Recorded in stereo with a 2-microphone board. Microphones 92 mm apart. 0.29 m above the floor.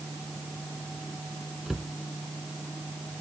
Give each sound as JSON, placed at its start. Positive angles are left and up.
{"t": 1.7, "sound": "a cupboard door", "side_deg": -5}